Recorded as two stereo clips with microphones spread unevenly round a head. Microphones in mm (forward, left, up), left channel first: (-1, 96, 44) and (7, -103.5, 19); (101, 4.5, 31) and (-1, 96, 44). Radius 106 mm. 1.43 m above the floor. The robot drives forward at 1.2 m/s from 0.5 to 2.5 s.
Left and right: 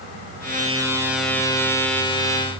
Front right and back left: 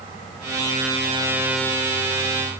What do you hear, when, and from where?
Only background noise.